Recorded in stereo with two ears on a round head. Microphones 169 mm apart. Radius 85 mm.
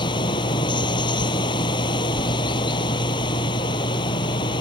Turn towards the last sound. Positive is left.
turn(degrees=25)  # may be behind; listen again after turning